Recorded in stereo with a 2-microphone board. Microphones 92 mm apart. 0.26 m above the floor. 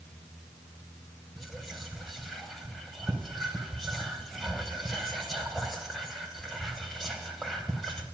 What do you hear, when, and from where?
1.4 s whispering: centre (ahead or behind), 1.2 m